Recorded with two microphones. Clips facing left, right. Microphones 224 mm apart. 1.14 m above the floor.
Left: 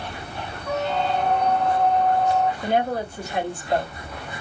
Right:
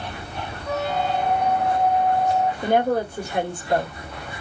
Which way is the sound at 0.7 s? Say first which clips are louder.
Even; 10° right (ahead or behind).